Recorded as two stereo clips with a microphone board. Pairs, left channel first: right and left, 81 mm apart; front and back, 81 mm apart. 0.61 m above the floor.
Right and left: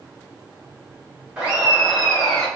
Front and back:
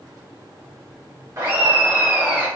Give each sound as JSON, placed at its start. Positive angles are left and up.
{"t": 1.4, "sound": "laughter", "azimuth_deg": 160, "distance_m": 1.4}